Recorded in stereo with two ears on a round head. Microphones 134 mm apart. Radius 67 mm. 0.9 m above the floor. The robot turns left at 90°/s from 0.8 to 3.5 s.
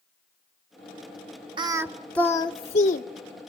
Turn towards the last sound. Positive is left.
turn(degrees=50)